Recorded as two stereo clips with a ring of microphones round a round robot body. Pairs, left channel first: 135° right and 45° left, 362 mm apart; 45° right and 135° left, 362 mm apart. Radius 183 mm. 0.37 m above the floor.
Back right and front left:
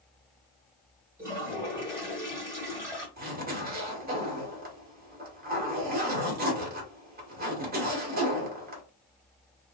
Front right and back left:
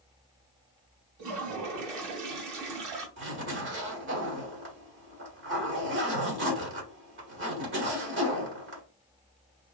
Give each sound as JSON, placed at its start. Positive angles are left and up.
{"t": 1.2, "sound": "a toilet flushing", "azimuth_deg": 130, "distance_m": 2.0}
{"t": 3.2, "sound": "a zipper", "azimuth_deg": 95, "distance_m": 1.8}